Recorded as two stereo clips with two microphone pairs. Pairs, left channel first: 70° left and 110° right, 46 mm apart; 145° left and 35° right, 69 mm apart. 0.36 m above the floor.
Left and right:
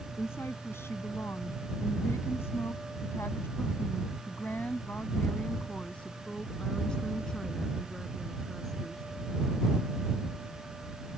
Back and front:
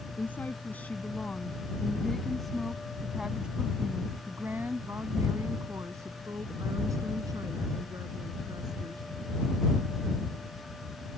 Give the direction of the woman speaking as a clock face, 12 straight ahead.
9 o'clock.